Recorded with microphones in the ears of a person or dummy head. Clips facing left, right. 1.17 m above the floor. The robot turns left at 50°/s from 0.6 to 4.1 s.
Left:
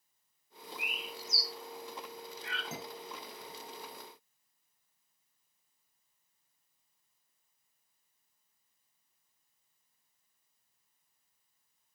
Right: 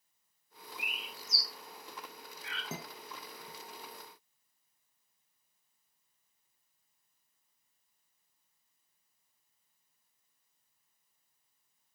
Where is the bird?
65° right (ahead or behind), 1.4 m; by 2.6 s 30° left (ahead or behind), 1.4 m.